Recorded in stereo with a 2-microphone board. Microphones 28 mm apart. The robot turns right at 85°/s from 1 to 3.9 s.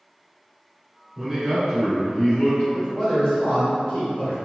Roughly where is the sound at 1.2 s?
Ahead right.